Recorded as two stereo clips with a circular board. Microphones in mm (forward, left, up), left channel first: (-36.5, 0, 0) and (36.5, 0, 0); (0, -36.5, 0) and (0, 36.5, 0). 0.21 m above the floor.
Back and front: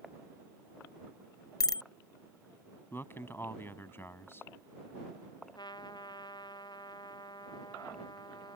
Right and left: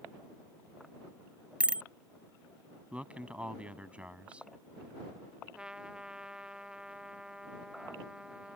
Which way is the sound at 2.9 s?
150° left.